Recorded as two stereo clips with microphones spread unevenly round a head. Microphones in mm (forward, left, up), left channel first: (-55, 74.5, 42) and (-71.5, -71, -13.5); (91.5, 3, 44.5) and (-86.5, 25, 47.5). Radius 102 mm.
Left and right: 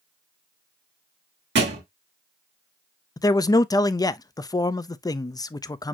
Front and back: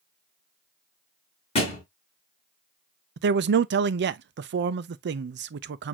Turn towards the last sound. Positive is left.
turn(degrees=160)